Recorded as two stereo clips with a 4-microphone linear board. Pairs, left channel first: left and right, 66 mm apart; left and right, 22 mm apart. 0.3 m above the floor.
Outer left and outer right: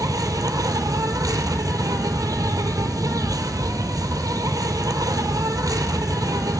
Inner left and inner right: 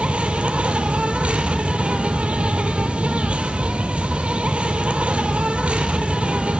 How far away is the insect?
About 1.1 m.